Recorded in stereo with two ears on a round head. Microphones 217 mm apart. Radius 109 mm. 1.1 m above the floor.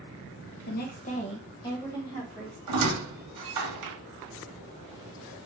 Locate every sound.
0.7 s a woman speaking: 40° left (ahead or behind), 0.9 m; by 2.6 s 5° left (ahead or behind), 1.7 m
2.7 s a squeak: 80° right, 1.0 m